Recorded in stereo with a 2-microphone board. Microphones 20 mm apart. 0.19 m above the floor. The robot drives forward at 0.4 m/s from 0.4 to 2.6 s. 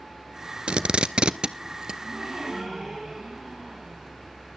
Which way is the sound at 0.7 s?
80° right.